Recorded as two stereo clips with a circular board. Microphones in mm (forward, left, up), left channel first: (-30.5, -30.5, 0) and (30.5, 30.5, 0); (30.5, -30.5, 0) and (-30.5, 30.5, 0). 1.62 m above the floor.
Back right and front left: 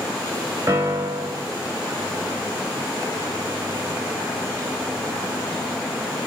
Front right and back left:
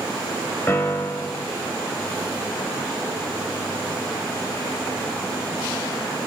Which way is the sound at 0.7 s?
5° left.